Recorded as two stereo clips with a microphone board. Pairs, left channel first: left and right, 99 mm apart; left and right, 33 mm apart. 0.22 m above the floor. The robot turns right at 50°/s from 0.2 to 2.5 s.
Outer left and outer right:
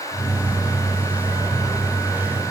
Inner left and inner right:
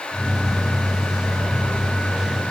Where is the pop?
I don't hear a pop.